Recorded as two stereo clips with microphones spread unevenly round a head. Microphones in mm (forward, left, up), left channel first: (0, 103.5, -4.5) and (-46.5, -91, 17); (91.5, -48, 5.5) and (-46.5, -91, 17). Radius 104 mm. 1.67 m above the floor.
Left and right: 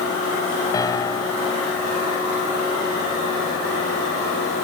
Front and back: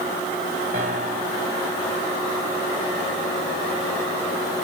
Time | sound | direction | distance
0.7 | a piano | 150° left | ?